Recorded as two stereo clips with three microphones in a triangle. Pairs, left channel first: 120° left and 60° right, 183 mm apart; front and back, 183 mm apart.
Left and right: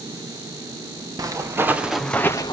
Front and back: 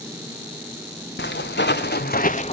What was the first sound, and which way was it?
Footsteps, 10° left.